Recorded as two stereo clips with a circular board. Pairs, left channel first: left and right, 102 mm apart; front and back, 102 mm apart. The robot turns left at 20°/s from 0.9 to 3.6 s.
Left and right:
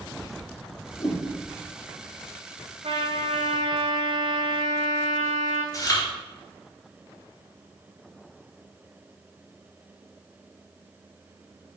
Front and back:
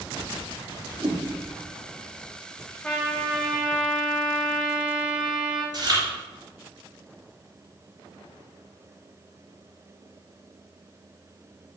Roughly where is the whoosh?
Behind left.